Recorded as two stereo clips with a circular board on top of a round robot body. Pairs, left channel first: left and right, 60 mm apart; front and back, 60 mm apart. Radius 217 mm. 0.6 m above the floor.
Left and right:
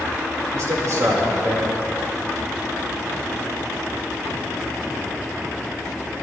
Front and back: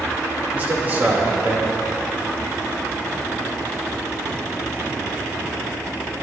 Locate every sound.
0.5 s a man speaking: 120° right, 2.5 m